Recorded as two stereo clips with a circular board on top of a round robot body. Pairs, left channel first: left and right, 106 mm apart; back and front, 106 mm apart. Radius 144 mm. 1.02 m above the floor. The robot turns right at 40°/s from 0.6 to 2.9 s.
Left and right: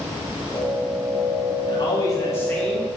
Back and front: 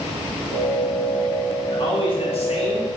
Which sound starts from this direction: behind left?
A man speaking, at 1.7 s.